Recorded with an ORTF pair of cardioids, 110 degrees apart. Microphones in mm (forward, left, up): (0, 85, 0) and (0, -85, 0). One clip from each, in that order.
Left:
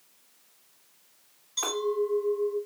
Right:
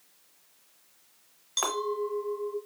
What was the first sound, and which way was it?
A clink, 55° right.